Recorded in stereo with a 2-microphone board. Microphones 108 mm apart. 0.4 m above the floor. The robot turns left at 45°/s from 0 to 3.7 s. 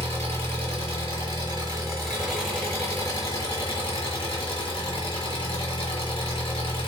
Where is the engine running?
70° right, 1.4 m; by 6.9 s 120° left, 1.4 m.